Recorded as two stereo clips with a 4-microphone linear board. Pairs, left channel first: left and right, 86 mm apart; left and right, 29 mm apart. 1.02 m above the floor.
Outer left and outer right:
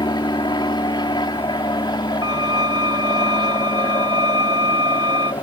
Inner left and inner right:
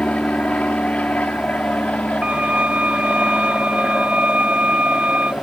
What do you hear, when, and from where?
0.0 s an aircraft: 60° left (ahead or behind)
2.2 s a violin: 55° right (ahead or behind)